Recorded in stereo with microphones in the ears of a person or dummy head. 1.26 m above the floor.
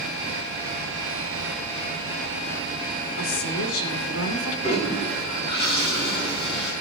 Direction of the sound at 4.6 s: 35° left (ahead or behind).